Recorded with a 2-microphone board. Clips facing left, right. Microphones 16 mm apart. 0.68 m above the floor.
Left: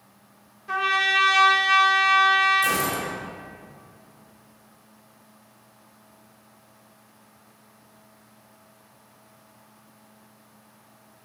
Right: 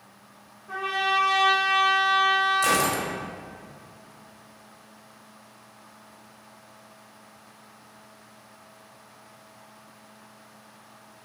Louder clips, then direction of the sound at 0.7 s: Left 4 dB; 55° left (ahead or behind).